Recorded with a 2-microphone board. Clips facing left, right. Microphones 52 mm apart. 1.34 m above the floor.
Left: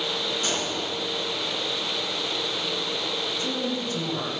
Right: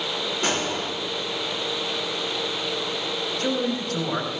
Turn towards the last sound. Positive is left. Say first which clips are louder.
# right 6 dB
turn(degrees=-65)  # may be behind; listen again after turning